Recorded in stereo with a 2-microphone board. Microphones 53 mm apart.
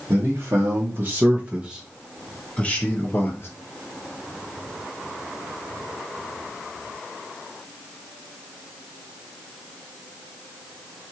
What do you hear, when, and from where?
0.1 s a man speaking: 55° right (ahead or behind), 1.2 m; by 3.5 s 45° left (ahead or behind), 1.1 m